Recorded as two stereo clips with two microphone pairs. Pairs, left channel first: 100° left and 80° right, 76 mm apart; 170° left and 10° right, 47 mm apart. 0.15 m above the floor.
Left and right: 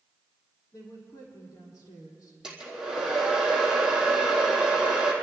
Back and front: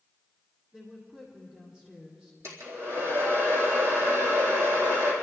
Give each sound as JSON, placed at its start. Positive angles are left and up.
{"t": 0.7, "sound": "a woman speaking", "azimuth_deg": 60, "distance_m": 6.5}
{"t": 2.4, "sound": "a hair dryer", "azimuth_deg": 0, "distance_m": 4.0}